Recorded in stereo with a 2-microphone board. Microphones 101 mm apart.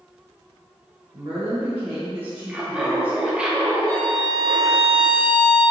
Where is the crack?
I don't hear a crack.